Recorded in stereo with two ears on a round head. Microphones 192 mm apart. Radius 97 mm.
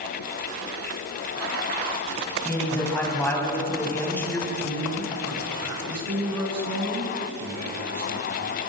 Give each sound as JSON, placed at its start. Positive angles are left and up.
{"t": 2.5, "sound": "a man speaking", "side_deg": 10, "distance_m": 7.5}
{"t": 4.5, "sound": "a man speaking", "side_deg": -75, "distance_m": 10.0}